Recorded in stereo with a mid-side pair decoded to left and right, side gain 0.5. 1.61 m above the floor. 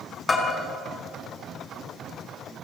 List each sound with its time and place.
0.3 s a bell: 30° left, 5.5 m